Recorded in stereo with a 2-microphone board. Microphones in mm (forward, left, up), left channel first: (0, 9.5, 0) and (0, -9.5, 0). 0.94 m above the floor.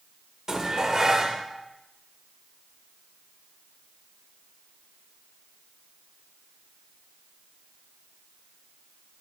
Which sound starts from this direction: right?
Dishes clattering, at 0.5 s.